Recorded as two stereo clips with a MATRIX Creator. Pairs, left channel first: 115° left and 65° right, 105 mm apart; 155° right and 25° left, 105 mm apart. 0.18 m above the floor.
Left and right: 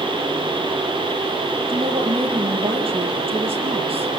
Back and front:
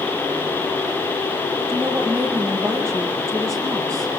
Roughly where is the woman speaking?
Ahead right.